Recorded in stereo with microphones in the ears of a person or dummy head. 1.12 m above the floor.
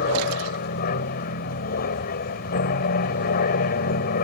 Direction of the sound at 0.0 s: 50° left (ahead or behind).